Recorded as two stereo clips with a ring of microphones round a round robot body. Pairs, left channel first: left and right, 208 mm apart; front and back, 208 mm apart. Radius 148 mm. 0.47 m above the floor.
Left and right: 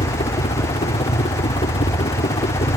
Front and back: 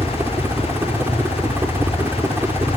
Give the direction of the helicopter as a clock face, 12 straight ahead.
8 o'clock.